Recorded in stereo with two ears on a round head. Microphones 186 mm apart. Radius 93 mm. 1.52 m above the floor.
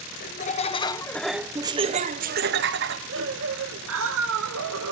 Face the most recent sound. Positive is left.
turn(degrees=-75)  # may be behind; listen again after turning